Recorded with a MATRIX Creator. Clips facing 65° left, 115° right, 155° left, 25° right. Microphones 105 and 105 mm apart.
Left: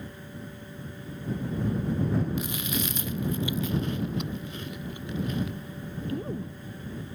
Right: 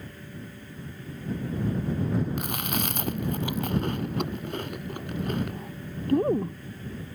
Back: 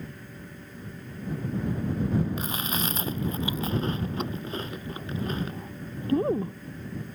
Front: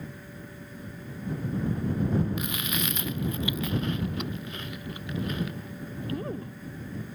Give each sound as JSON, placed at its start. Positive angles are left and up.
{"t": 2.4, "sound": "chewing", "azimuth_deg": -145}